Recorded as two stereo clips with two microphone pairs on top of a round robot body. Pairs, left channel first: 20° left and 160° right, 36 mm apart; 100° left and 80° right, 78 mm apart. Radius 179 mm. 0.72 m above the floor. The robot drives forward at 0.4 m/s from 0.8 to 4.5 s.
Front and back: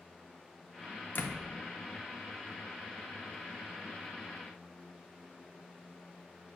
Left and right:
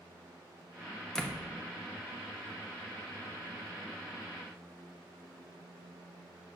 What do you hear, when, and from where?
1.1 s a door slam: 15° left, 0.9 m